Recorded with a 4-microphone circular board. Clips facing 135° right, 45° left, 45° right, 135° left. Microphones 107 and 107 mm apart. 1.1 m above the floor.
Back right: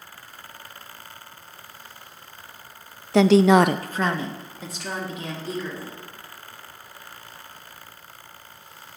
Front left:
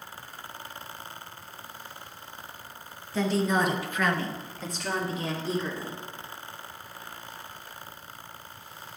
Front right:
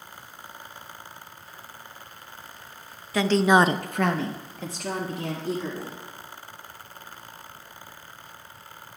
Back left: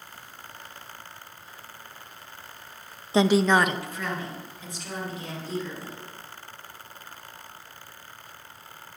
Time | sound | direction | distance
3.1 | a woman speaking | 160° right | 0.7 m